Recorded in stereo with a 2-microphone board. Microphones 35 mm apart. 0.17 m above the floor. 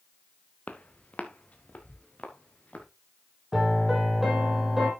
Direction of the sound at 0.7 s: 45° left (ahead or behind).